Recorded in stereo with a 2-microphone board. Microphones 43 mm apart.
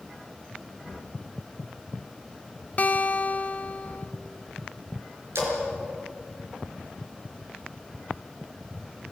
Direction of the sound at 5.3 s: 70° right (ahead or behind).